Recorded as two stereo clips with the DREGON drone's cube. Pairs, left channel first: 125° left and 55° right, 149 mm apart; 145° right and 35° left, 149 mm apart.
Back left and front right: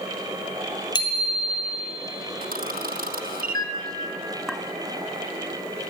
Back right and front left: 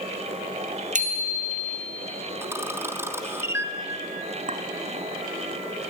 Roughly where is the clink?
Ahead left.